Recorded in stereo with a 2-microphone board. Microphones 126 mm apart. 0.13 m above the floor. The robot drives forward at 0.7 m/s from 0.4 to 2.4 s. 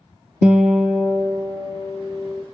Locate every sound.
0.4 s a guitar: 10° right (ahead or behind), 0.9 m; by 2.4 s 5° right (ahead or behind), 2 m